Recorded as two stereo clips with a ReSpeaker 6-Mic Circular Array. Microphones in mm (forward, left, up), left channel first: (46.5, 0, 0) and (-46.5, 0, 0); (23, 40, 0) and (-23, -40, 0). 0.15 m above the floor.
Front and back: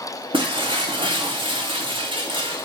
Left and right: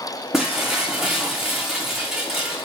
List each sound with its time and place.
0.3 s breaking glass: 155° left, 4 m